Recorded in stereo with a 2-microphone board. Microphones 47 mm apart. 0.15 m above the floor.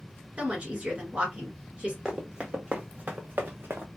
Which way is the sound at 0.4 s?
25° right (ahead or behind).